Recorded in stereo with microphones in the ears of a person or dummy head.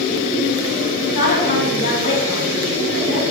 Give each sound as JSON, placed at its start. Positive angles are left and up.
{"t": 1.0, "sound": "a woman speaking", "side_deg": 45, "distance_m": 4.5}